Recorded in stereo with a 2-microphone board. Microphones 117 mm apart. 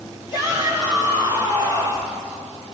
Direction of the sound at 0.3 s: 35° left (ahead or behind).